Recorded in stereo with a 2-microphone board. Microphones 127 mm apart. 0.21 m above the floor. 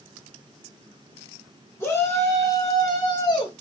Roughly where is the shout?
Centre.